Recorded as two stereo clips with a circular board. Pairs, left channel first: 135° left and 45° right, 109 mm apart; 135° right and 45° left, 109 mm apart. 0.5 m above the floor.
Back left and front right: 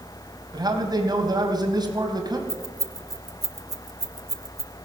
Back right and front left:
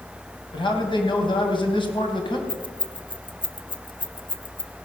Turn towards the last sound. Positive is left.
turn(degrees=-100)